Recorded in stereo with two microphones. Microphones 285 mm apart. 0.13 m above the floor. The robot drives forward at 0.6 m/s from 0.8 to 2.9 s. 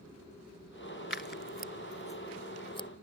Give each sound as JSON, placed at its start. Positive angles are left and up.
{"t": 1.1, "sound": "scissors", "side_deg": 40}